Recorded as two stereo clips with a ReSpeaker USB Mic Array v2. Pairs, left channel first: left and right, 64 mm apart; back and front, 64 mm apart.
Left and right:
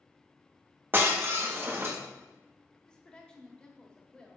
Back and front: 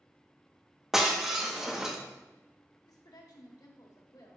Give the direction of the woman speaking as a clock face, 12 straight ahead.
6 o'clock.